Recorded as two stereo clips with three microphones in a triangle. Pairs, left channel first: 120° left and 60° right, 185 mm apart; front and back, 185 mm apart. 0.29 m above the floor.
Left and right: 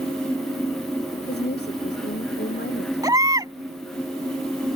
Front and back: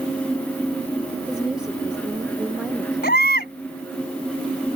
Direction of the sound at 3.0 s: 10° left.